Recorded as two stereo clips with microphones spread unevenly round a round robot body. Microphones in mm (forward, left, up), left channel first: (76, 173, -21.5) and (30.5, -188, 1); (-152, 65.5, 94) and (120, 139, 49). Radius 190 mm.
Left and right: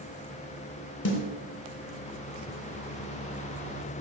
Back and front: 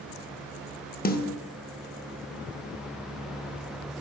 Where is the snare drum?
135° left, 0.7 m.